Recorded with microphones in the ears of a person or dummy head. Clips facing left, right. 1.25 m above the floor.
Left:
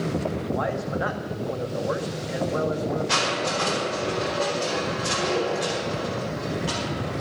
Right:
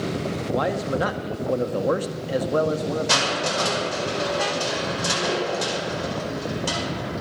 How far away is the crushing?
About 9.5 m.